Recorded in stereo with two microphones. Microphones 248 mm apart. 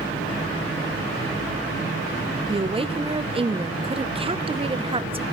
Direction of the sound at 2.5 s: 20° right (ahead or behind).